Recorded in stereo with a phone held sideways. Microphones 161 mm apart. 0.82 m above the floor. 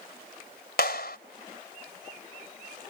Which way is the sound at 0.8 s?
75° left (ahead or behind).